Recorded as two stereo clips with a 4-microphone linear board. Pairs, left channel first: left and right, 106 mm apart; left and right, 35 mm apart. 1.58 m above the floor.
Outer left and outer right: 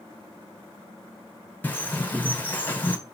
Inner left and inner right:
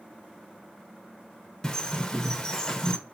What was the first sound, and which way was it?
A bird, 15° left (ahead or behind).